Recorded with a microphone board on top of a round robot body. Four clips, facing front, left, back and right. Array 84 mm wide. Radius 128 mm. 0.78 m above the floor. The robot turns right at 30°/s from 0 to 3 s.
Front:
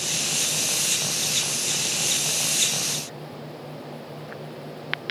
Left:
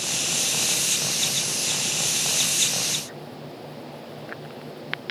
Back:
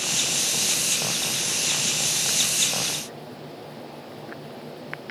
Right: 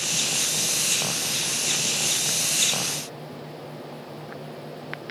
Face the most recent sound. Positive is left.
No sound to turn to.